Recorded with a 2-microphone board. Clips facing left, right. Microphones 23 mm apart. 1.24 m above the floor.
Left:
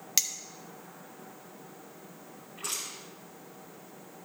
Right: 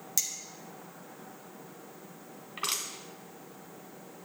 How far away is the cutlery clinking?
About 0.7 m.